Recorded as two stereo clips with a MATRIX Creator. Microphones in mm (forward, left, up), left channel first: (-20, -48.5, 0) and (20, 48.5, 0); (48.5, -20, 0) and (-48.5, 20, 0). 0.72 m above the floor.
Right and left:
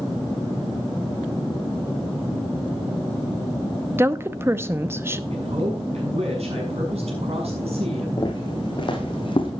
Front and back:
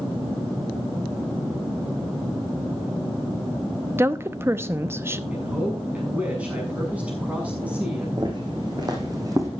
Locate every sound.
4.0 s a woman speaking: 115° left, 0.7 m
5.3 s a man speaking: 80° left, 6 m
8.2 s footsteps: 160° right, 3.5 m; by 9.5 s 145° right, 2.5 m